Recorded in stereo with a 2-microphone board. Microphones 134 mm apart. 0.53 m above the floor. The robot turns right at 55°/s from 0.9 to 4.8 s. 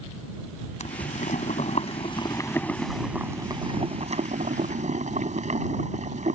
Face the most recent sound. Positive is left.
turn(degrees=-75)